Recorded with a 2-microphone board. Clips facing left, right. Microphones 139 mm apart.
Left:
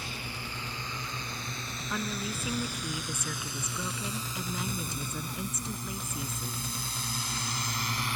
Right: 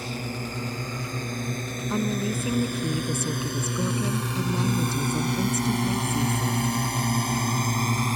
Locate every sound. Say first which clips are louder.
0.0 s a drone: right 9 dB; 40° right (ahead or behind)
1.9 s a woman speaking: right 9 dB; 30° right (ahead or behind)